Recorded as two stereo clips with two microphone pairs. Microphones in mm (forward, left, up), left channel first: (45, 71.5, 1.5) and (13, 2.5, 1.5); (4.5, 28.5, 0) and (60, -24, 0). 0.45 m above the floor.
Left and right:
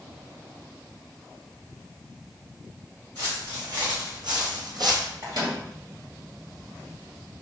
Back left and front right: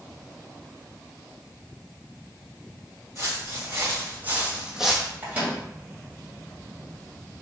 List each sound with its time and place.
3.1 s footsteps: 95° right, 2.5 m; by 5.1 s 140° right, 0.9 m
5.2 s a microwave: 110° right, 2.5 m